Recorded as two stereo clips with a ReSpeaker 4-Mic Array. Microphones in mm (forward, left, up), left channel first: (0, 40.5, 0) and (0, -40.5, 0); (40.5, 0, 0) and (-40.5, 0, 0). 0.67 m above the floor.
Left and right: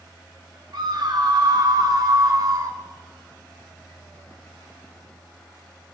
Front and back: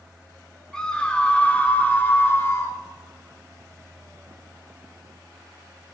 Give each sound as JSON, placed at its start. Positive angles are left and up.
{"t": 0.7, "sound": "a scream", "azimuth_deg": -80, "distance_m": 2.0}